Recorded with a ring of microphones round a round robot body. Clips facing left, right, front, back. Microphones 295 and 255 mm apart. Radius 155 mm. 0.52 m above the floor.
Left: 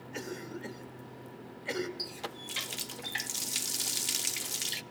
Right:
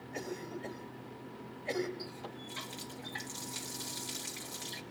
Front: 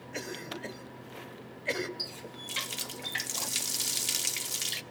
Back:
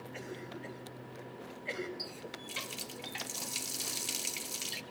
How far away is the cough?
About 3 m.